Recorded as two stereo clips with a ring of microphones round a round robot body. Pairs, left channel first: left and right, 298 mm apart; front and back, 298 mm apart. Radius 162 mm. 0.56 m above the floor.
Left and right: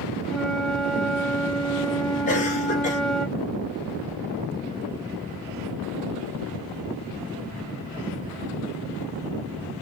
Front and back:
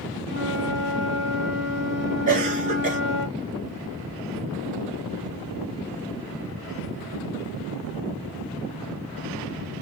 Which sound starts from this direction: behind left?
A cough, at 2.3 s.